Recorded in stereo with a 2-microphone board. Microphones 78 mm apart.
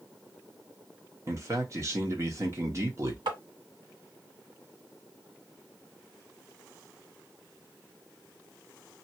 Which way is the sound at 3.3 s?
90° right.